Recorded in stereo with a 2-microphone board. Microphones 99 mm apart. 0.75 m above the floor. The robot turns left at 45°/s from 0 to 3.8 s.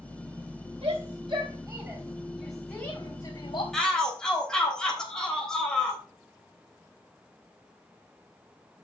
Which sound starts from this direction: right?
A shout, at 0.8 s.